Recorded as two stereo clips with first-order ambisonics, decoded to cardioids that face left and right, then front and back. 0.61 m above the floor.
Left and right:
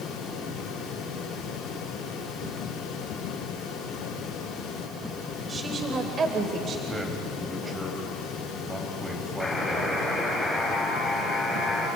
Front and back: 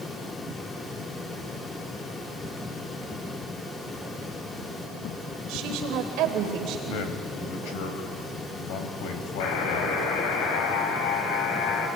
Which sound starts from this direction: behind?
A woman speaking, at 5.5 s.